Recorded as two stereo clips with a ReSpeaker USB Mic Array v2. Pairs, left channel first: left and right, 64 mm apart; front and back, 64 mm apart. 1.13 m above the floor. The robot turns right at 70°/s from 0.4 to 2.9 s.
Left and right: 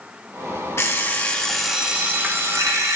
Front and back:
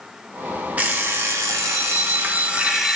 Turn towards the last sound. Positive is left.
turn(degrees=-90)